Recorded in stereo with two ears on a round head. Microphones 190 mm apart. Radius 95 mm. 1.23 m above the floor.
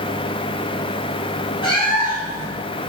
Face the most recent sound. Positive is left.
turn(degrees=25)  # may be behind; listen again after turning